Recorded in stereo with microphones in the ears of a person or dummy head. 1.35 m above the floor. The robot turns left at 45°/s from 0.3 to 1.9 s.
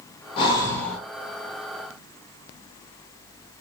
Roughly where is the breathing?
Left.